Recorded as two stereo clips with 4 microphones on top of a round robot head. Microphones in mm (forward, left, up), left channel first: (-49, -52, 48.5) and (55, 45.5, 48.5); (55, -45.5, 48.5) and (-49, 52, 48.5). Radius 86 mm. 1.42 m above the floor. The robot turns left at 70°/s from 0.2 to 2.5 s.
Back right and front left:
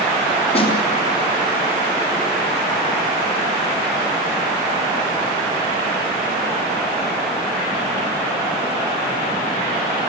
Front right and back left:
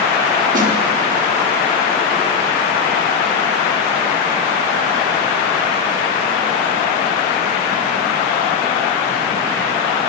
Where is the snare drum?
175° left, 4.5 m; by 0.7 s 160° left, 4.5 m.